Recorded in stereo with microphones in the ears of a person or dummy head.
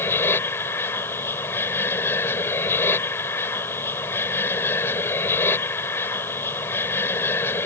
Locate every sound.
0.0 s an aircraft: 15° left (ahead or behind)